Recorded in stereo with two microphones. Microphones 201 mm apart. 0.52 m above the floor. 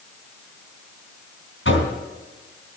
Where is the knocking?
75° left (ahead or behind), 3.5 m.